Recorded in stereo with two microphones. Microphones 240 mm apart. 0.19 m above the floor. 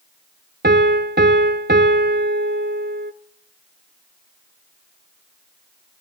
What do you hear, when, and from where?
0.6 s a piano: 45° right (ahead or behind), 0.8 m